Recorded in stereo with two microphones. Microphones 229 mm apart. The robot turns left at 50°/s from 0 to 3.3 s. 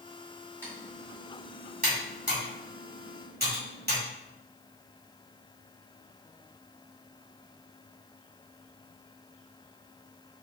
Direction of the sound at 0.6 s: 10° left (ahead or behind).